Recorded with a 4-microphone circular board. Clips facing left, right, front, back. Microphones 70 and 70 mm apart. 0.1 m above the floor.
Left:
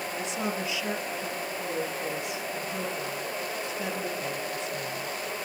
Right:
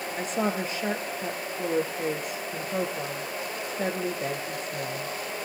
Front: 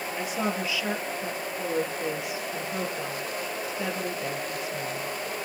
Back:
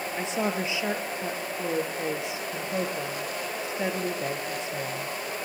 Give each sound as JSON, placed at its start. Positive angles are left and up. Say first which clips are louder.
{"t": 0.2, "sound": "a woman speaking", "louder": "right 5 dB, back 1 dB", "azimuth_deg": -120, "distance_m": 2.0}